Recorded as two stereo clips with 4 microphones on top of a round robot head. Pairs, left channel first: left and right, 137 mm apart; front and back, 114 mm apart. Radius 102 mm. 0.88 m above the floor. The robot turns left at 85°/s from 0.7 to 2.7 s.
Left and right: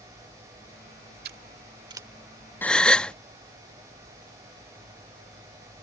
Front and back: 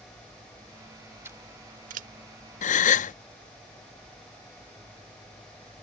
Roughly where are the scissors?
Right.